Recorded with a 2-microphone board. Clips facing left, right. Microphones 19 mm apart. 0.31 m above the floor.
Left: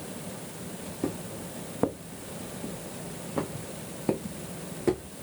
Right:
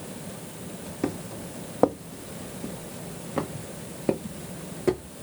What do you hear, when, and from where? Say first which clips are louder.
1.0 s footsteps: right 3 dB; 75° right (ahead or behind), 0.9 m; by 5.1 s 5° right (ahead or behind), 2 m